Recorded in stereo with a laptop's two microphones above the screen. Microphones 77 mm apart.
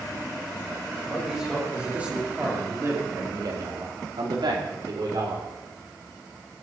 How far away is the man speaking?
About 4.5 m.